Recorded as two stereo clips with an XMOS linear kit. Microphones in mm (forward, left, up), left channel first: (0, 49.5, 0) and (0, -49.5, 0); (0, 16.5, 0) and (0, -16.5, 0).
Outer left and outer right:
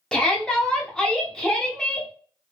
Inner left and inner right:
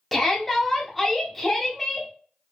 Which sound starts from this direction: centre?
A shout, at 0.1 s.